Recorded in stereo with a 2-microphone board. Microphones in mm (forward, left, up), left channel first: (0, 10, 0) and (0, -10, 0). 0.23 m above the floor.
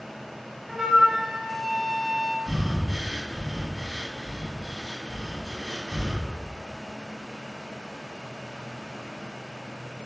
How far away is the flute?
About 0.6 m.